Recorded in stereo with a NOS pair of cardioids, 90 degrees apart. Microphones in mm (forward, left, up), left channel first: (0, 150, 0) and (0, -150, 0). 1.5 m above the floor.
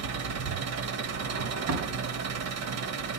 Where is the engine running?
65° right, 1.5 m.